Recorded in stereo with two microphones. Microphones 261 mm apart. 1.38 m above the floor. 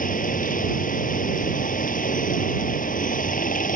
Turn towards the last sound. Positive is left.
turn(degrees=30)  # may be behind; listen again after turning